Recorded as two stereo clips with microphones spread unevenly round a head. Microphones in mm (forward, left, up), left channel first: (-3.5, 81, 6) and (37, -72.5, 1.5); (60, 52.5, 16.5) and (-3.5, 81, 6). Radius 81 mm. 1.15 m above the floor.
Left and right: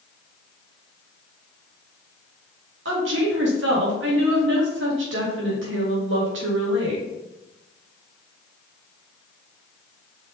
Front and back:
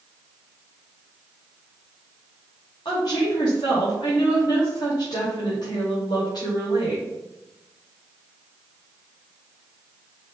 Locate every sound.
2.9 s a woman speaking: 85° right, 2.5 m